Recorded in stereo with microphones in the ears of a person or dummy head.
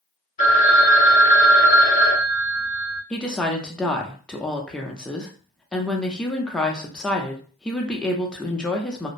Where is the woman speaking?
5° left (ahead or behind), 0.5 m.